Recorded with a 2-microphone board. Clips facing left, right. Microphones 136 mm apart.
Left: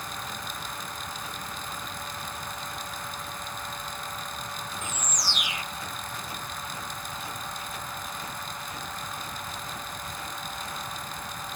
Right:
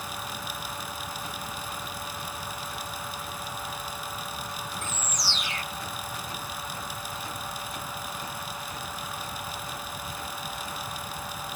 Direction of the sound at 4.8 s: 15° left (ahead or behind).